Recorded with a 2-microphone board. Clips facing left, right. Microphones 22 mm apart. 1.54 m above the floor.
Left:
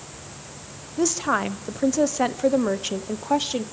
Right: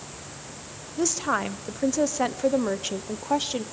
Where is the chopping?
I don't hear chopping.